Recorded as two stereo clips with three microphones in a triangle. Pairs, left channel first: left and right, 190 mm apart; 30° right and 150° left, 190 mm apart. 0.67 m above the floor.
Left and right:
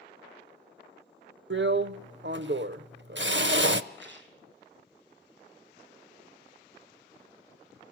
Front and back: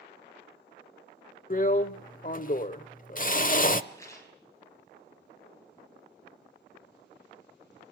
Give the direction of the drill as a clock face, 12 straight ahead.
2 o'clock.